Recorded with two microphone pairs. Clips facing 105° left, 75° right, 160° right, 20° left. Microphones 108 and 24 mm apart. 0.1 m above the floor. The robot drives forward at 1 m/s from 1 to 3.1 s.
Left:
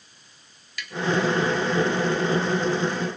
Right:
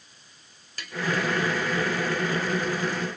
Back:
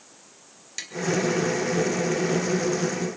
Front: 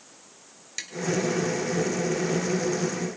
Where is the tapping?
60° right, 2 m.